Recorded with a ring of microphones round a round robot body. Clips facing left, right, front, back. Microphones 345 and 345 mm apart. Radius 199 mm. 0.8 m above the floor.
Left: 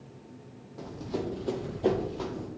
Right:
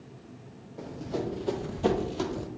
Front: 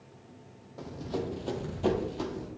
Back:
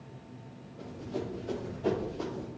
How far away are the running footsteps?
About 2 m.